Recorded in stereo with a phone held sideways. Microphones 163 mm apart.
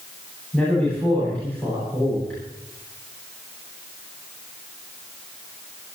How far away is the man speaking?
About 10 m.